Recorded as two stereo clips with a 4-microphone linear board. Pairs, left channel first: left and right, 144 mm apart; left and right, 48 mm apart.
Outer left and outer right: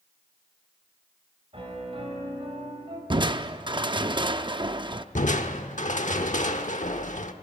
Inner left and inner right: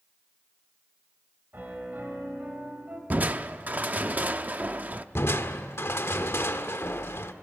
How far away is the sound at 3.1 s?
About 0.6 m.